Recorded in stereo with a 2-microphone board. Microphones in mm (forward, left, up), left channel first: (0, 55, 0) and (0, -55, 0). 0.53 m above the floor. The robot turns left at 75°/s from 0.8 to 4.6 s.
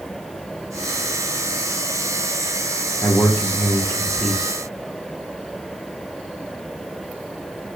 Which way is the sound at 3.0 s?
20° left (ahead or behind).